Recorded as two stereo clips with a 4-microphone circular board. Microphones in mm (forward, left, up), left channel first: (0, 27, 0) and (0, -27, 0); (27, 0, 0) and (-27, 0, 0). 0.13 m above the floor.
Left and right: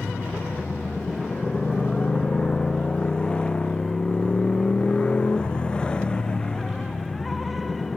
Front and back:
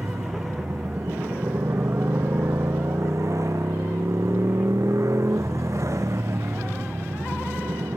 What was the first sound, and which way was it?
A motorcycle, 160° left.